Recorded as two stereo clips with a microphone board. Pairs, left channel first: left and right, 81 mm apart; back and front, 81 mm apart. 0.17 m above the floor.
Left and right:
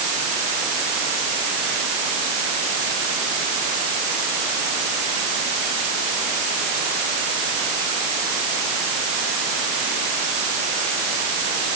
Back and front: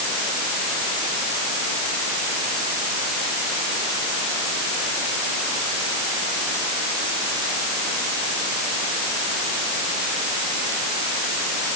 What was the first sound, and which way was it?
Only background noise.